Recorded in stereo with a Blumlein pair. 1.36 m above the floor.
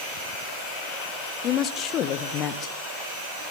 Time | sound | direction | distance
1.4 | a woman speaking | 30° left | 0.9 m